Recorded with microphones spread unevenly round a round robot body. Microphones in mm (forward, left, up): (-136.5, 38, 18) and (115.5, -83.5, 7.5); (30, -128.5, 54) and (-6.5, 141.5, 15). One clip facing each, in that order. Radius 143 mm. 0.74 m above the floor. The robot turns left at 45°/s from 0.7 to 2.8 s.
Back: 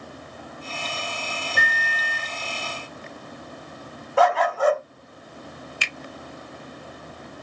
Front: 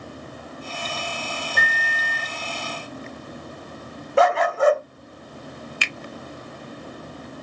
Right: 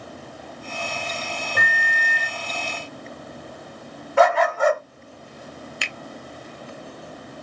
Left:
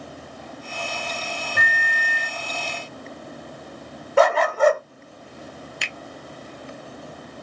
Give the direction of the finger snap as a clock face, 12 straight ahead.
12 o'clock.